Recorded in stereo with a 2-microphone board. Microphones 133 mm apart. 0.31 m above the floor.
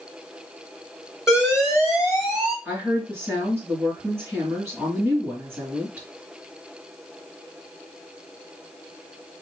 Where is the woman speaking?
15° right (ahead or behind), 3 m.